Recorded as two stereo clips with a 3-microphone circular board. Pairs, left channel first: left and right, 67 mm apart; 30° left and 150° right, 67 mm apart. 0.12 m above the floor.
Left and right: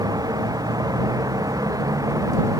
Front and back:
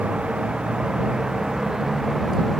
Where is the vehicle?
75° right; by 2.6 s 60° right.